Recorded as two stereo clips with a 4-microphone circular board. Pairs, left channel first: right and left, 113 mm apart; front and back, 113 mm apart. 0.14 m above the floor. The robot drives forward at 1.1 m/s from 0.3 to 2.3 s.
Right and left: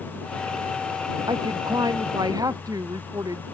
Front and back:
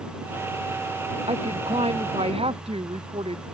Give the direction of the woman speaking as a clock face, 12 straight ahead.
7 o'clock.